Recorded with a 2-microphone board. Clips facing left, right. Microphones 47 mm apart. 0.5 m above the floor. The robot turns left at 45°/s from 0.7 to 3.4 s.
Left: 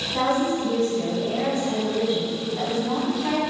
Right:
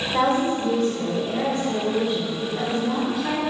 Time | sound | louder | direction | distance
0.1 | a woman speaking | right 1 dB | 60° right | 1.9 m